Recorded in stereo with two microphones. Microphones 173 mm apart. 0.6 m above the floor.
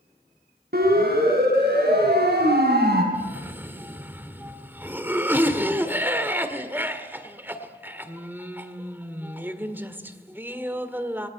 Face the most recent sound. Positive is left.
turn(degrees=-10)  # may be behind; listen again after turning